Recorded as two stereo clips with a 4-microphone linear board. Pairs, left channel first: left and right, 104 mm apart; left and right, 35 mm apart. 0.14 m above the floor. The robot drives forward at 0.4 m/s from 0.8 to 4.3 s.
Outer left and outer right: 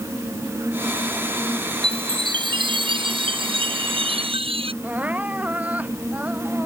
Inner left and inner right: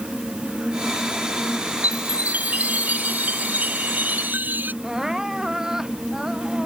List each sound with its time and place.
1.8 s a chime: 45° right (ahead or behind); by 4.7 s 60° right (ahead or behind)
4.8 s crying: 15° right (ahead or behind)